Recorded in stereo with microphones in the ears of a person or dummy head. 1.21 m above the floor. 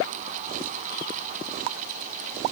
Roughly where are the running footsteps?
I don't hear running footsteps.